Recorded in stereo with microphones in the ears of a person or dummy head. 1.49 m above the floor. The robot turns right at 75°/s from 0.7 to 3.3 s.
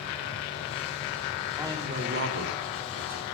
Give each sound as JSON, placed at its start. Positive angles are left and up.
{"t": 1.6, "sound": "a man speaking", "azimuth_deg": -170, "distance_m": 3.0}